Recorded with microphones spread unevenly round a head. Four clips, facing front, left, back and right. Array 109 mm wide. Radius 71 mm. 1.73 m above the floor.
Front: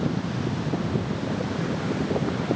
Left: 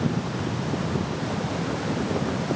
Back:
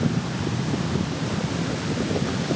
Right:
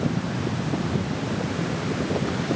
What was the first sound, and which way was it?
Only background noise.